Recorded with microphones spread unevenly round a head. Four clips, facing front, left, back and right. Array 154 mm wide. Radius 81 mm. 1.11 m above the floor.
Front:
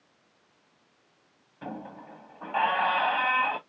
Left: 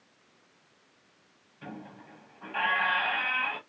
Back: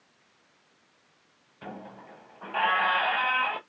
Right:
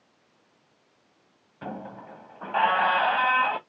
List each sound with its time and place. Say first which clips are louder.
1.6 s a squeak: right 7 dB, front 3 dB; 70° right, 0.6 m